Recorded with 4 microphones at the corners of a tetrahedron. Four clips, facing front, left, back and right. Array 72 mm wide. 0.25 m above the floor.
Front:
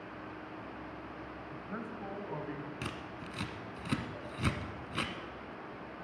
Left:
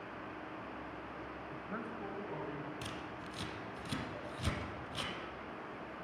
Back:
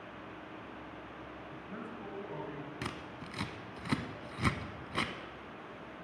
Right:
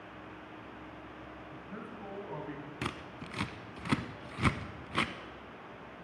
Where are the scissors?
100° right, 0.6 m.